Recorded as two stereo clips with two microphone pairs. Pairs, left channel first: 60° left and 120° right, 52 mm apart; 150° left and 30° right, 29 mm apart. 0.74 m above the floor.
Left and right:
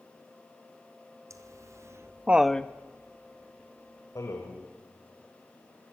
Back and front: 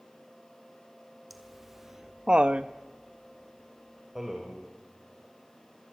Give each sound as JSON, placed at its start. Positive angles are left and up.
{"t": 1.3, "sound": "laughter", "azimuth_deg": -115, "distance_m": 1.8}